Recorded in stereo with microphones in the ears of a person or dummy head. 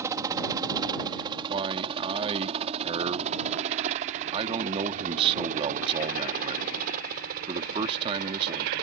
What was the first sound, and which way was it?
A helicopter, 15° right (ahead or behind).